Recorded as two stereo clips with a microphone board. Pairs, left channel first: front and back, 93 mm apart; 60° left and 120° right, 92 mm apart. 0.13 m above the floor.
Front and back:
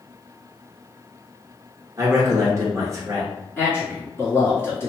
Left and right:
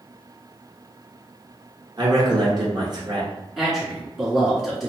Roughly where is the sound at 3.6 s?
Ahead right.